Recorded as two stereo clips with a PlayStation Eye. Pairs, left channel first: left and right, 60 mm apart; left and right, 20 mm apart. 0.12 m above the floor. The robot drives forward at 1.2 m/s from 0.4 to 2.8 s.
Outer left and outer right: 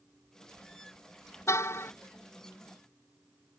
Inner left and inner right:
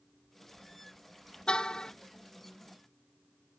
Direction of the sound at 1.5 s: 50° left (ahead or behind).